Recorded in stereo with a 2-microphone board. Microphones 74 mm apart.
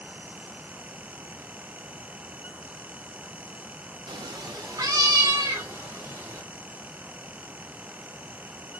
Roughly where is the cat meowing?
Right.